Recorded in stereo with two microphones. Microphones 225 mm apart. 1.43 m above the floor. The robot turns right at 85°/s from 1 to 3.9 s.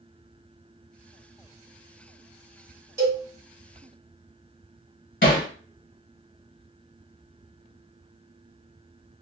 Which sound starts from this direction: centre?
A cowbell, at 3.0 s.